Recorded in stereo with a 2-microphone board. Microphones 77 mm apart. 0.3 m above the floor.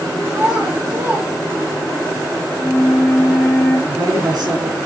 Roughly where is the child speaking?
Centre.